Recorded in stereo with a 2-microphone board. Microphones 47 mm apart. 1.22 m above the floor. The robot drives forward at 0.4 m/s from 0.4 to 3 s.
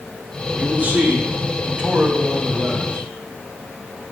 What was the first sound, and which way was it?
A man speaking, 40° right (ahead or behind).